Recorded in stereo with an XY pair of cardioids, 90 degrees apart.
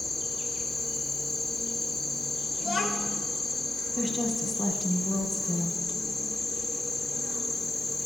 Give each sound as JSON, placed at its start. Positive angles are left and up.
{"t": 0.0, "sound": "an insect", "azimuth_deg": 40, "distance_m": 0.8}
{"t": 2.6, "sound": "a child speaking", "azimuth_deg": 50, "distance_m": 0.8}
{"t": 4.0, "sound": "a woman speaking", "azimuth_deg": 15, "distance_m": 1.0}